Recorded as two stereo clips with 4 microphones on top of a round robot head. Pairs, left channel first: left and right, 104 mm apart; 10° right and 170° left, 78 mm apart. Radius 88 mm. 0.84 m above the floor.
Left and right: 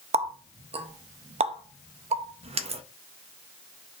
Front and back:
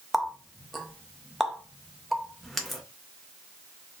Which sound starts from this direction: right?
A running tap, at 0.1 s.